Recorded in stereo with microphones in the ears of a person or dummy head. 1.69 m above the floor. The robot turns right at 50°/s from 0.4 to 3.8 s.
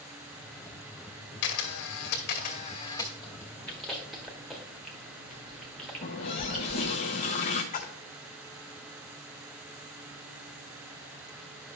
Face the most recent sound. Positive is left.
turn(degrees=40)  # may be behind; listen again after turning